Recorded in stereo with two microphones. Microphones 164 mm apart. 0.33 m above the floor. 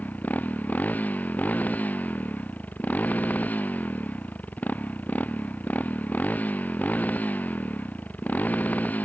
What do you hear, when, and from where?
0.0 s a motorcycle: 10° left (ahead or behind)